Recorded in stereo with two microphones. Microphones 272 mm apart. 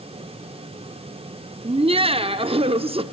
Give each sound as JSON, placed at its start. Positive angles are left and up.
{"t": 1.6, "sound": "laughter", "side_deg": -20, "distance_m": 0.8}